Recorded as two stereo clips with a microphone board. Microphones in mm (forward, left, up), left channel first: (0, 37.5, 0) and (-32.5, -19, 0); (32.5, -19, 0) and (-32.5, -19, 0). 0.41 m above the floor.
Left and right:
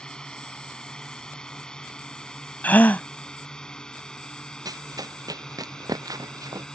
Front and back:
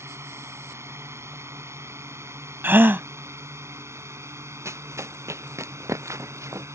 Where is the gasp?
125° left.